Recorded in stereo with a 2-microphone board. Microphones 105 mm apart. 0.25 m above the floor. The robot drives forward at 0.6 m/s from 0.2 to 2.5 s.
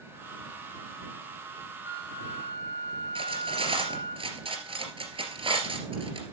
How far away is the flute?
About 1.1 m.